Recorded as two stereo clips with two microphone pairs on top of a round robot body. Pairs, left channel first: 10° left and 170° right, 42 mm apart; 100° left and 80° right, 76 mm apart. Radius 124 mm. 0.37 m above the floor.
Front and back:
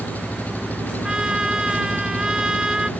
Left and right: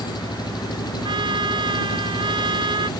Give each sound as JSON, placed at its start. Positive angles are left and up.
{"t": 0.0, "sound": "an engine running", "azimuth_deg": 60}
{"t": 1.0, "sound": "a trumpet", "azimuth_deg": -95}